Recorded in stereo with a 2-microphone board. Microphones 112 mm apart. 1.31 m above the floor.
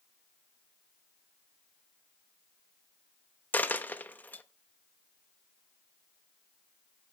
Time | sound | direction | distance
3.5 | a dropped coin | 15° left (ahead or behind) | 0.7 m